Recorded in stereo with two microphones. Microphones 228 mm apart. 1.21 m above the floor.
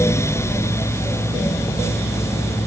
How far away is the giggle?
No giggle in this recording.